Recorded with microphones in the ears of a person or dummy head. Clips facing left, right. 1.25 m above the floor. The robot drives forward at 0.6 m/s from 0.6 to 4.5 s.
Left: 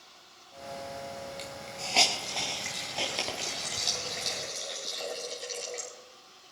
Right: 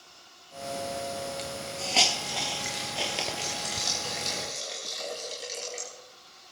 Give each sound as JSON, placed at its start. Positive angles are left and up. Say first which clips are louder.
{"t": 1.4, "sound": "a hiss", "louder": "right 5 dB", "side_deg": -5, "distance_m": 1.5}